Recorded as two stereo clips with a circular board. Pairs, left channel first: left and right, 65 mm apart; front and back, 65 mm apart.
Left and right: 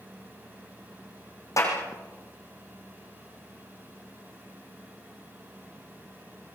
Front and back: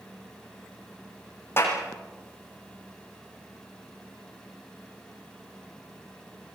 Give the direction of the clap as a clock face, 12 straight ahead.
10 o'clock.